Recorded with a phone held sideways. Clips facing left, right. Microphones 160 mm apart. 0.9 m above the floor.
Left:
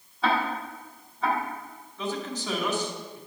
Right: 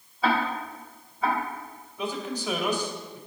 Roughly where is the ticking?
Centre.